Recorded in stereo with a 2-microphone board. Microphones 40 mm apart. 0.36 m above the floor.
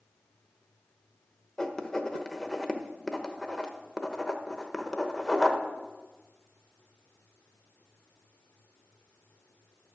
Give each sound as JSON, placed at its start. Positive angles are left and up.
{"t": 1.6, "sound": "writing", "side_deg": 15, "distance_m": 0.9}